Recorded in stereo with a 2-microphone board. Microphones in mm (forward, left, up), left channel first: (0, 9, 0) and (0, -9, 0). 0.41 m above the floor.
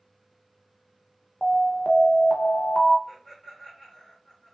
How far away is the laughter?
About 1.4 m.